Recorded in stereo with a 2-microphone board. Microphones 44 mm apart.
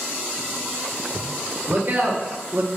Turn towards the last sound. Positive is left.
turn(degrees=-30)  # may be behind; listen again after turning